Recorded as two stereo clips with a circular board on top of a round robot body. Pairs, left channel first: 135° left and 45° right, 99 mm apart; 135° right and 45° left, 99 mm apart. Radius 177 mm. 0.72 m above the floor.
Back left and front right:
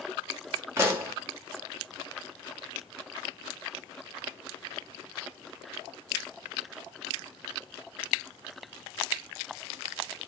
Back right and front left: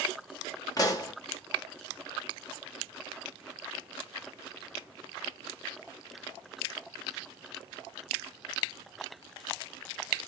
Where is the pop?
100° right, 1.0 m.